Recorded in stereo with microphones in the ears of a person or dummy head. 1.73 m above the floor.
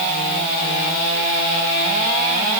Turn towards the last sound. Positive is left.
No sound to turn to.